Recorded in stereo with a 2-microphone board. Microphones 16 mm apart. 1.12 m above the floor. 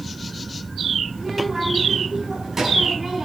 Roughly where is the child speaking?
Right.